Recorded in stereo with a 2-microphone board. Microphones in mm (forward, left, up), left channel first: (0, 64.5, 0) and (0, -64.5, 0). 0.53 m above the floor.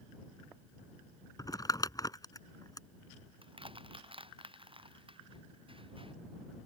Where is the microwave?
No microwave in this recording.